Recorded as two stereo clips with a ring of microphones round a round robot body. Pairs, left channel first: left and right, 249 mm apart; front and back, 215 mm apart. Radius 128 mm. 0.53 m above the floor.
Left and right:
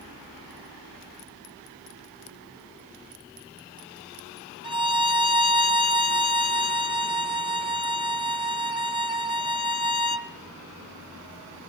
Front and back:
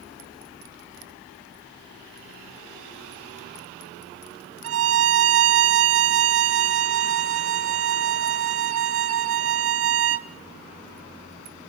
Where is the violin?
160° right, 1.7 m.